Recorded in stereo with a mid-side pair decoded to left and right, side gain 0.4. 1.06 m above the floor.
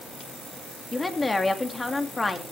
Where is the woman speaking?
20° left, 2.5 m.